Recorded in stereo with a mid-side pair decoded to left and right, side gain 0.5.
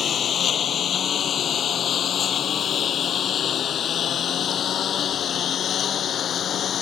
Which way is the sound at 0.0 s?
50° left.